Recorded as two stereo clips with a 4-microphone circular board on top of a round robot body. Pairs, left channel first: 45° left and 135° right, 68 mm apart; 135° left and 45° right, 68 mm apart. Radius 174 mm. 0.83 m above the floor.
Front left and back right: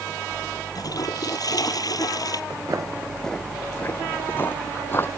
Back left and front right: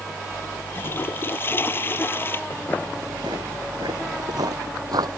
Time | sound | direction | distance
0.8 | a toilet flushing | 75° left | ?
2.5 | footsteps | straight behind | ?